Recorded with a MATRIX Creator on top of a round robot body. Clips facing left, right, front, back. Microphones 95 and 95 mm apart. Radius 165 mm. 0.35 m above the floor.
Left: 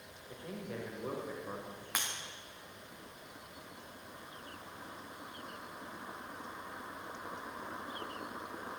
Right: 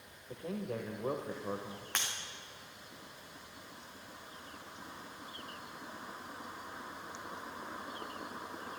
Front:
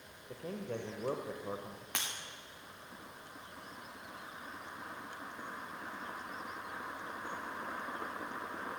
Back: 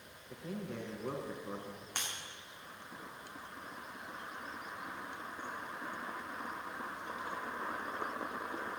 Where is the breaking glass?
5° left, 3.5 m.